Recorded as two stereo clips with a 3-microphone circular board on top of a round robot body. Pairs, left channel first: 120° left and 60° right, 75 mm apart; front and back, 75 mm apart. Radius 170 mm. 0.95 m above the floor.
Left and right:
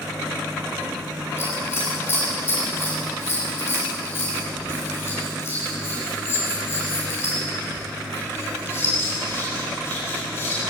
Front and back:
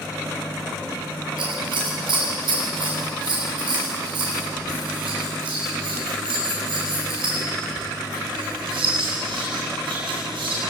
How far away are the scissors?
About 9 m.